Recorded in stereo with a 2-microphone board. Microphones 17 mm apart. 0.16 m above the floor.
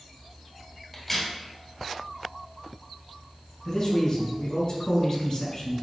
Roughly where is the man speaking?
Left.